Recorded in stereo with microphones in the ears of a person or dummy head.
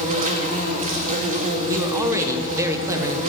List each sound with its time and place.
0.0 s an insect: 40° right (ahead or behind), 1.3 m
1.7 s a man speaking: 15° right (ahead or behind), 0.9 m